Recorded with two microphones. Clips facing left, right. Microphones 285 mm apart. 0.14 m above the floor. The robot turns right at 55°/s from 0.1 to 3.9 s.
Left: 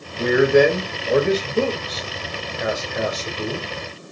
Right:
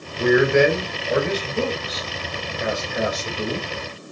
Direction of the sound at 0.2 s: 30° left.